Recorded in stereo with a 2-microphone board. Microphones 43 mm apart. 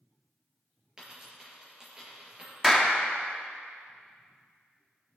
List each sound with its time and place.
1.0 s a dropped coin: 15° right (ahead or behind), 3.5 m
2.6 s a clap: 5° right (ahead or behind), 1.2 m